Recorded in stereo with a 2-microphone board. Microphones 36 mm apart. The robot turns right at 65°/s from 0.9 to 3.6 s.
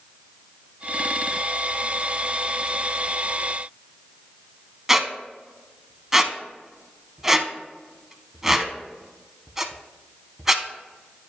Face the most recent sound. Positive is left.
turn(degrees=-15)  # may be behind; listen again after turning